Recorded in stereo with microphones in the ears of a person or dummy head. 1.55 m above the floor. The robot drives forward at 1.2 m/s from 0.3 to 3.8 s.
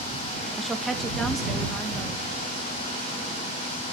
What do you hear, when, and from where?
0.6 s a woman speaking: 5° right (ahead or behind), 1.2 m; by 2.2 s centre (ahead or behind), 3 m